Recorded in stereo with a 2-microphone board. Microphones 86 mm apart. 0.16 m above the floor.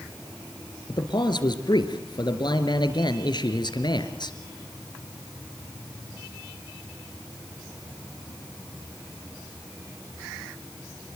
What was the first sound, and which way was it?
A man speaking, 60° left (ahead or behind).